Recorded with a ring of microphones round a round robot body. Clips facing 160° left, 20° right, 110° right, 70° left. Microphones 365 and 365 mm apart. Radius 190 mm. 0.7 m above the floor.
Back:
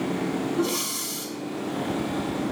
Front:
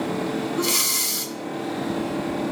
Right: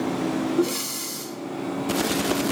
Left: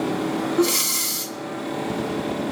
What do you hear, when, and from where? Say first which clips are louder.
0.6 s breathing: back 1 dB, left 2 dB; 5° left, 0.9 m